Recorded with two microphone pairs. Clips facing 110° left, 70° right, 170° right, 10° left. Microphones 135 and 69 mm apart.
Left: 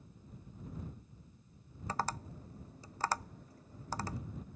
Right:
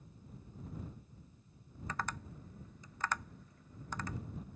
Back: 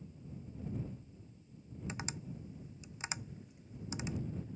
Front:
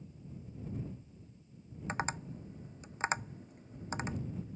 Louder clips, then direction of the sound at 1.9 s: Left 4 dB, front 8 dB; 55° left.